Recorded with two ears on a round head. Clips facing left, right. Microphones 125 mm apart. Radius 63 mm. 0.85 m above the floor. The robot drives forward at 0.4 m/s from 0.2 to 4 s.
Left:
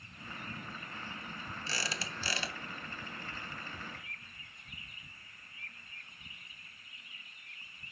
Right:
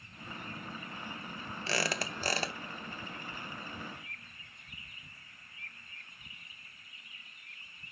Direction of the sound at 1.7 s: 50° right (ahead or behind).